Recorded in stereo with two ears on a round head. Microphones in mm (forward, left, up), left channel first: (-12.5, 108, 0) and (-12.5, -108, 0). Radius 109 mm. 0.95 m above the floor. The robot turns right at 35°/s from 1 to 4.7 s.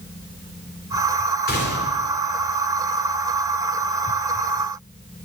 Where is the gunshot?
40° left (ahead or behind), 3 m; by 2.0 s 55° left (ahead or behind), 3 m.